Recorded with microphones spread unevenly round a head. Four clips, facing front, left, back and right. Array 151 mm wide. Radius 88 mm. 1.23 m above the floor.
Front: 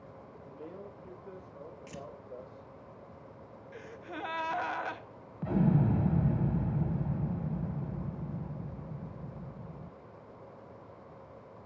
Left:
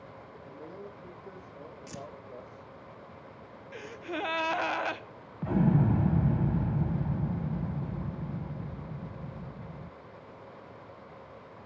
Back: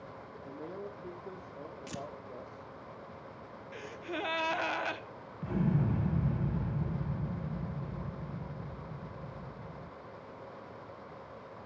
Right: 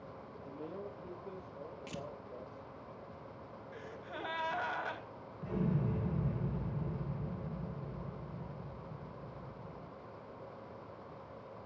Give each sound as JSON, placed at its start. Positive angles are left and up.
{"t": 0.5, "sound": "a man speaking", "azimuth_deg": -165, "distance_m": 3.0}
{"t": 1.9, "sound": "tearing paper", "azimuth_deg": 180, "distance_m": 1.1}
{"t": 3.7, "sound": "a gasp", "azimuth_deg": 125, "distance_m": 1.0}
{"t": 5.4, "sound": "an explosion", "azimuth_deg": 55, "distance_m": 0.9}